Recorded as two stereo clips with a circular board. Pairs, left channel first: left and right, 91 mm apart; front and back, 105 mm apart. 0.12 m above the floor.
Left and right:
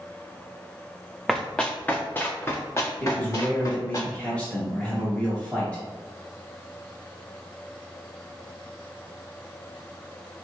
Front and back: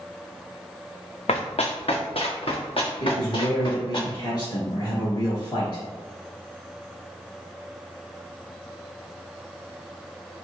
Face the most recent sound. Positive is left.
turn(degrees=15)